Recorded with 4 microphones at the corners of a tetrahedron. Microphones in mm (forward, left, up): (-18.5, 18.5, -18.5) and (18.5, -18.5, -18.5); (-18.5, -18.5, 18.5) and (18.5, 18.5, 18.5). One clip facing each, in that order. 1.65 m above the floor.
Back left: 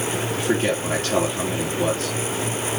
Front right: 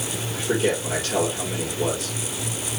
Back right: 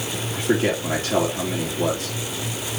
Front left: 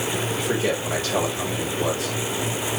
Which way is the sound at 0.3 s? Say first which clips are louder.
Even, back right 5 dB; 175° left.